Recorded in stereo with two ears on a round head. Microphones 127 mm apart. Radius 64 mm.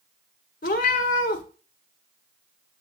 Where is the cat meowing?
65° left (ahead or behind), 1.2 m.